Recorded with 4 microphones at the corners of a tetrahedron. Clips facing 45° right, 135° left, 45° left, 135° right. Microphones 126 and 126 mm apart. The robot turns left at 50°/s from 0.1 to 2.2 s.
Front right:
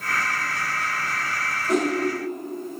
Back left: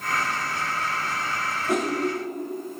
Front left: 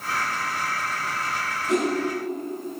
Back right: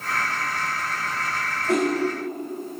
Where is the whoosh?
160° right, 0.9 m; by 1.9 s 170° right, 0.9 m.